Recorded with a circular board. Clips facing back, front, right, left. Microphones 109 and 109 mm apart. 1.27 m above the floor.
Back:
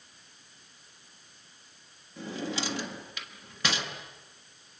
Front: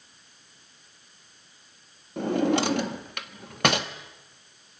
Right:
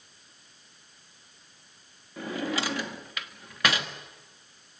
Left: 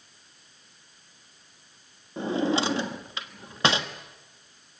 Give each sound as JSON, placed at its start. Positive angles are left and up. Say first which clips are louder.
{"t": 2.2, "sound": "a drawer", "louder": "front 12 dB, left 6 dB", "azimuth_deg": 25, "distance_m": 1.4}